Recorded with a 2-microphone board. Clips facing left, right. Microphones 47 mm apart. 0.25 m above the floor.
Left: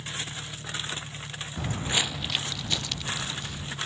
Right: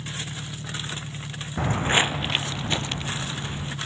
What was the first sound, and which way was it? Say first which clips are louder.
An engine running: right 1 dB; 60° right (ahead or behind).